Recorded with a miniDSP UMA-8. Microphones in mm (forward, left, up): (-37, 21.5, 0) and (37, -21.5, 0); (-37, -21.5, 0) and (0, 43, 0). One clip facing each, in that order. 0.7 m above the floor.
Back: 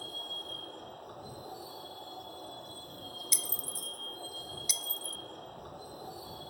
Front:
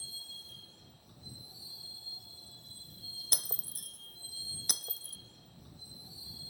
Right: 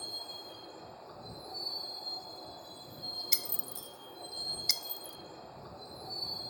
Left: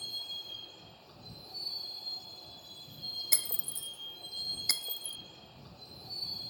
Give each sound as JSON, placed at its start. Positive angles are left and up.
{"t": 0.0, "sound": "a vehicle", "azimuth_deg": 180}
{"t": 3.3, "sound": "breaking glass", "azimuth_deg": 5}